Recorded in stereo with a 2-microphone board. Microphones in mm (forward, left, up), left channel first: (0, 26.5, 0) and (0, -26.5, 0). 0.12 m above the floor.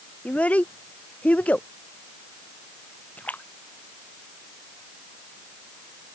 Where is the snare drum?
I don't hear a snare drum.